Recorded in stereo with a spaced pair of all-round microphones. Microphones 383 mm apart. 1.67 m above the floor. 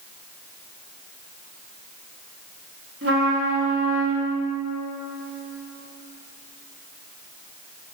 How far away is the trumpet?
About 3.5 m.